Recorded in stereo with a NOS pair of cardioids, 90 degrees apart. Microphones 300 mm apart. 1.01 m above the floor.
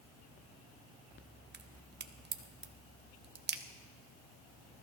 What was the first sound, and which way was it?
A crack, 35° right.